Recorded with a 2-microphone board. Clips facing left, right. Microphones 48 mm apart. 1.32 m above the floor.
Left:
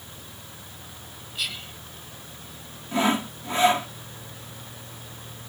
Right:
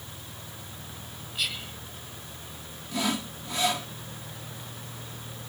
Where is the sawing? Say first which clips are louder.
Left 6 dB; 35° left (ahead or behind).